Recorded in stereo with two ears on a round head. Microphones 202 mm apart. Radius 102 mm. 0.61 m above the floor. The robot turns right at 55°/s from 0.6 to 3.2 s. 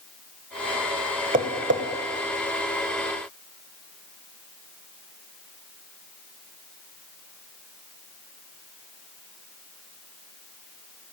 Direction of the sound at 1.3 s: 35° right (ahead or behind).